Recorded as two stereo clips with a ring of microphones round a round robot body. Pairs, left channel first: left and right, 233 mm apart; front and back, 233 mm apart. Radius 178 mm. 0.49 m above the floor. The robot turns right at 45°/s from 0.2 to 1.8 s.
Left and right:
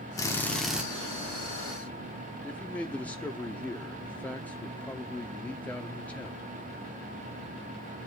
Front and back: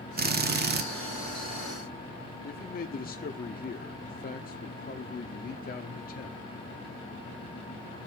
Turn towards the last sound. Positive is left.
turn(degrees=10)